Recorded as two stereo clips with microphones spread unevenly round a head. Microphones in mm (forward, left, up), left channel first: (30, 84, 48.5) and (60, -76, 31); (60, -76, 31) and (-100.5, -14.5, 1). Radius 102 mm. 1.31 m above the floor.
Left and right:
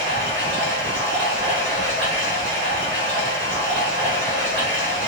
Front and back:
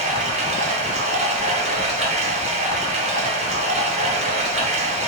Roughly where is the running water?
Behind right.